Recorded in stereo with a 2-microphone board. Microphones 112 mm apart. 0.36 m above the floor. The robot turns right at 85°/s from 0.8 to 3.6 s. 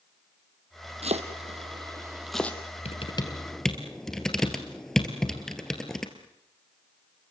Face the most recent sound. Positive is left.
turn(degrees=5)  # may be behind; listen again after turning